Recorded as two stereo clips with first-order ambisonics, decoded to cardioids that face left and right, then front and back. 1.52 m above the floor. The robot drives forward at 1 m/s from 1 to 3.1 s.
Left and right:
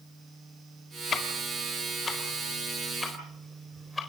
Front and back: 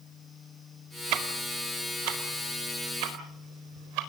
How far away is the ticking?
About 1.9 m.